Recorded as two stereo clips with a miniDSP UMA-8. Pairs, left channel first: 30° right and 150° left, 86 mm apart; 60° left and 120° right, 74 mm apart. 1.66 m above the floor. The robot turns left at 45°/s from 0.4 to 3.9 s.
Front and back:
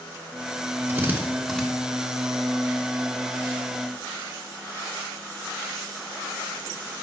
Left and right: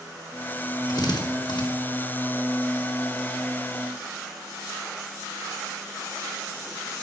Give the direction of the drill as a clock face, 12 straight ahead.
9 o'clock.